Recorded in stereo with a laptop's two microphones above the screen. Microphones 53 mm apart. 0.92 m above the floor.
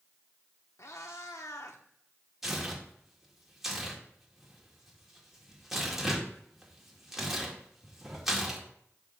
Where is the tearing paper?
10° right (ahead or behind), 2 m.